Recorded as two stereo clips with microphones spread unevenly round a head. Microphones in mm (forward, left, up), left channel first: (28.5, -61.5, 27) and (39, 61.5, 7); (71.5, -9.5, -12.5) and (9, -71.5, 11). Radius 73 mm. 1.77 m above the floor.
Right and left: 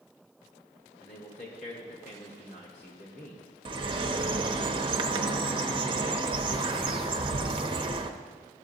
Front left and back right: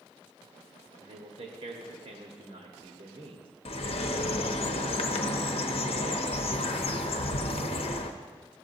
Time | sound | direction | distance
1.0 | a man speaking | 140° right | 1.4 m
3.6 | a bird | 30° left | 0.8 m